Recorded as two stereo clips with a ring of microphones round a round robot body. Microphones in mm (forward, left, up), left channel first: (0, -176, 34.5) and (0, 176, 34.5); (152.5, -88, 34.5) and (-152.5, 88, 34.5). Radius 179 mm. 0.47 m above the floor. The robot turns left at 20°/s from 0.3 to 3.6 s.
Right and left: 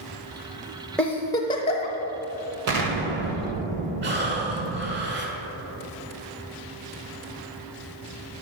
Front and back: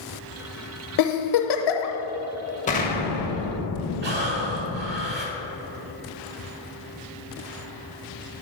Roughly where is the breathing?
Behind left.